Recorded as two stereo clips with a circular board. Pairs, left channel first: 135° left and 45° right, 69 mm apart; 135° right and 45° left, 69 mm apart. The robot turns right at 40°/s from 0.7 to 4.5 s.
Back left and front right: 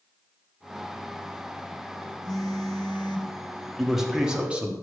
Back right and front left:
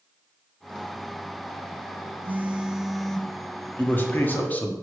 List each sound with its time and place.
2.2 s a phone buzzing: 105° left, 0.6 m; by 3.3 s 150° left, 0.6 m
3.8 s a man speaking: 130° right, 1.0 m; by 4.7 s 100° right, 1.0 m